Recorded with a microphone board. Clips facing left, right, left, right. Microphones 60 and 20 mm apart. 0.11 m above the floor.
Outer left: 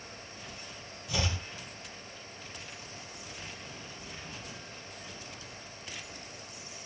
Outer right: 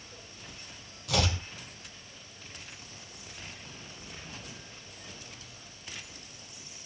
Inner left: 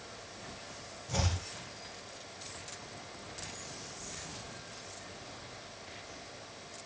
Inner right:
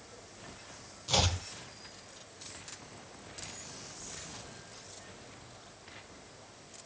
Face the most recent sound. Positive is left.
turn(degrees=-65)  # may be behind; listen again after turning